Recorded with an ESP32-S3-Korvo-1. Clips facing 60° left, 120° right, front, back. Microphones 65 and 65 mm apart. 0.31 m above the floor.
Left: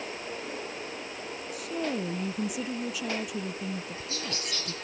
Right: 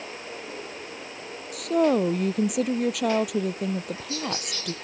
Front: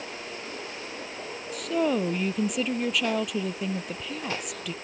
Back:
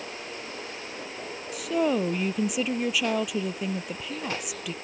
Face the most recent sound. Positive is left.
turn(degrees=-95)